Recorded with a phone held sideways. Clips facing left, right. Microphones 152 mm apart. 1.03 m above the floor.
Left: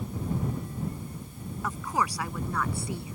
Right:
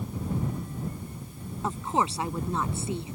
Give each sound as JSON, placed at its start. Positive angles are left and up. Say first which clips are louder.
{"t": 1.6, "sound": "a woman speaking", "louder": "right 3 dB", "side_deg": -25}